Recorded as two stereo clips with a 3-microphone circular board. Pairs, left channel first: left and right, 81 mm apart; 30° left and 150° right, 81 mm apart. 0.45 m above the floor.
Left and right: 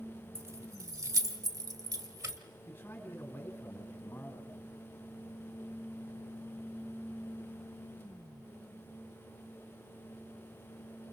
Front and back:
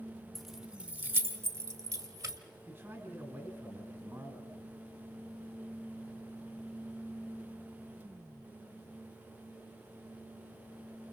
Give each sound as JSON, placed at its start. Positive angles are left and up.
{"t": 0.3, "sound": "keys jangling", "azimuth_deg": -55, "distance_m": 1.0}
{"t": 2.7, "sound": "a man speaking", "azimuth_deg": 150, "distance_m": 4.0}